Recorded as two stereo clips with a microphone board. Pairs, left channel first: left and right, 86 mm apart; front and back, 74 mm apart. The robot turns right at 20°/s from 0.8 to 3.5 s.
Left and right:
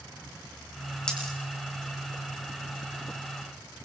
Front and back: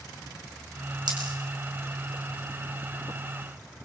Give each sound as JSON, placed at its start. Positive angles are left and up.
{"t": 1.1, "sound": "a dropped coin", "azimuth_deg": 170, "distance_m": 4.5}